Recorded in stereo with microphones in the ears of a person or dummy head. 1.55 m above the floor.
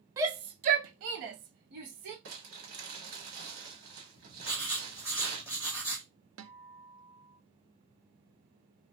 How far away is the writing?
About 1.2 m.